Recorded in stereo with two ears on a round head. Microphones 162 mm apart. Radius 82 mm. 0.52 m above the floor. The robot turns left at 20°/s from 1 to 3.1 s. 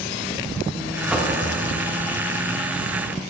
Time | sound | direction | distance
1.1 | knocking | 5° right (ahead or behind) | 0.9 m